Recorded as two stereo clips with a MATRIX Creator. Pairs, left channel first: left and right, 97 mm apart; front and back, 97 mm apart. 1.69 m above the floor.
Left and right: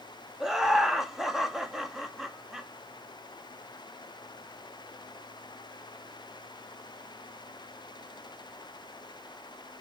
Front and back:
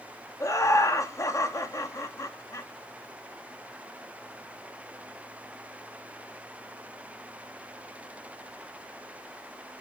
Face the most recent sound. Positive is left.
turn(degrees=-5)